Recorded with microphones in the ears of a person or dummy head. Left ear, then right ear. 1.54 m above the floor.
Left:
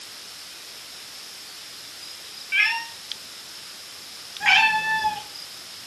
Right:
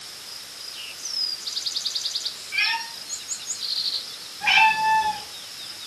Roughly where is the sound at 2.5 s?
Left.